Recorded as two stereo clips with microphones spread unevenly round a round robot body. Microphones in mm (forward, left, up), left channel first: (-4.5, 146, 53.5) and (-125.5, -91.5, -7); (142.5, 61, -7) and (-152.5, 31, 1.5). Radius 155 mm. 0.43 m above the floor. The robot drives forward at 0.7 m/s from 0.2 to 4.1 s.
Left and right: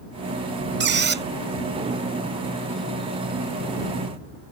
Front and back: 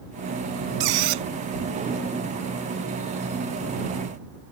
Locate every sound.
0.8 s a squeak: 165° right; by 1.2 s 170° right